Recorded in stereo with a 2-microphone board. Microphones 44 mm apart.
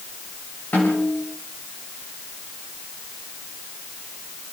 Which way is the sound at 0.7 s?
55° left (ahead or behind).